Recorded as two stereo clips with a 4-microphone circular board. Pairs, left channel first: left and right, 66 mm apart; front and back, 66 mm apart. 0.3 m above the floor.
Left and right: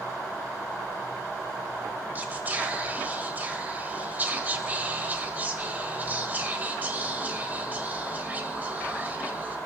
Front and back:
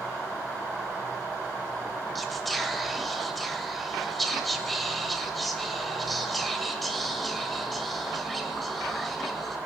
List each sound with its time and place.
2.1 s whispering: 85° right, 1.4 m